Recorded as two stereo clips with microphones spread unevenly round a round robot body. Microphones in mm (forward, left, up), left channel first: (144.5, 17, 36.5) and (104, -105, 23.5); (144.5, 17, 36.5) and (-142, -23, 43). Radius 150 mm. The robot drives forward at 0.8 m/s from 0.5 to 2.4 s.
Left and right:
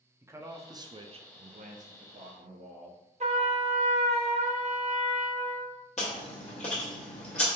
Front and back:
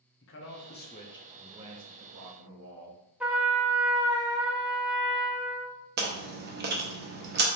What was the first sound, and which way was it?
A man speaking, 40° right.